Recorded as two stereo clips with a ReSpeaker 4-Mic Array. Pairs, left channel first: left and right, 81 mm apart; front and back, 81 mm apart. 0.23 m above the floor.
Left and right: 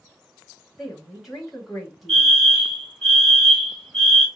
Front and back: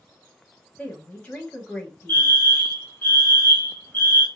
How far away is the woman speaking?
About 0.9 m.